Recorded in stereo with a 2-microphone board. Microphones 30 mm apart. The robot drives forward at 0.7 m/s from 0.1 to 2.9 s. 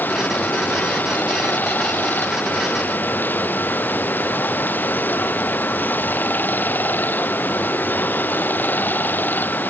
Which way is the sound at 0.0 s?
75° left (ahead or behind).